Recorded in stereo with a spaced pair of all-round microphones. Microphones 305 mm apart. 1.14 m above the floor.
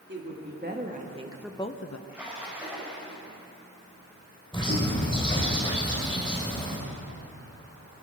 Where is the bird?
15° left (ahead or behind), 3.5 m.